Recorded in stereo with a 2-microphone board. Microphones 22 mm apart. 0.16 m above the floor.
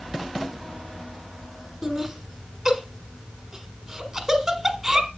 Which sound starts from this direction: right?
Laughter, at 1.8 s.